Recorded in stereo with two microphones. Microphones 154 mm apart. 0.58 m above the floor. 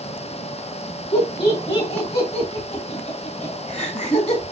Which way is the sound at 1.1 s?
40° left (ahead or behind).